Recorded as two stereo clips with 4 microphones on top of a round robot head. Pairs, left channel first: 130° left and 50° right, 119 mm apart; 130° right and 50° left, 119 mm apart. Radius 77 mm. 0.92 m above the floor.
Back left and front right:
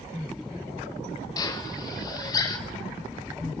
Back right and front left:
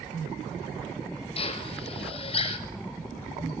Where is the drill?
170° right, 5.5 m.